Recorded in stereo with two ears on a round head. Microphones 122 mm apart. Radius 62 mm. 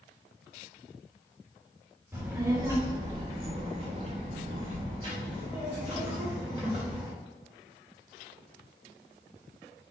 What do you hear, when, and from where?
2.1 s a child speaking: 15° right (ahead or behind), 1.0 m; by 7.1 s 25° right (ahead or behind), 1.8 m